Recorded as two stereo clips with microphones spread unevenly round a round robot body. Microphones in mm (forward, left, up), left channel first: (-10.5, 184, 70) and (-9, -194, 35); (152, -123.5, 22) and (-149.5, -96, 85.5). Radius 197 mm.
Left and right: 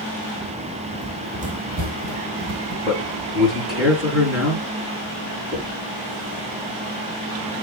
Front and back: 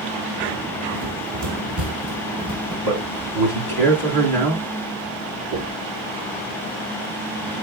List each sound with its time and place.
0.9 s running footsteps: 170° right, 1.3 m; by 2.8 s 150° right, 3 m
2.9 s a man speaking: straight behind, 4 m
5.5 s knocking: 175° right, 4.5 m